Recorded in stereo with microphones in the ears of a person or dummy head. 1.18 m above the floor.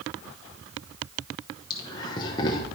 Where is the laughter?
25° left (ahead or behind), 1.0 m.